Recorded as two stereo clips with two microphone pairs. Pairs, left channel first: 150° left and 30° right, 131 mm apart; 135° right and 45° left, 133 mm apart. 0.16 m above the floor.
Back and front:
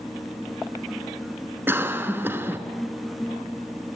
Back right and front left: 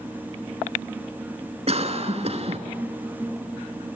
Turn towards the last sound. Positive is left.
turn(degrees=35)